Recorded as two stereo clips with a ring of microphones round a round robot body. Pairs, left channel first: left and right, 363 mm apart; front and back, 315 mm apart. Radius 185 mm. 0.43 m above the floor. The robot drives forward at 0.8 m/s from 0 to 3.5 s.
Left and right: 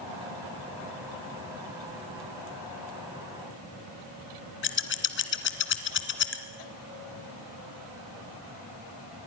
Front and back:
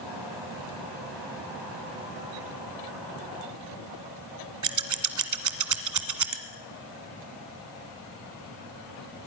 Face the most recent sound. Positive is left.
turn(degrees=150)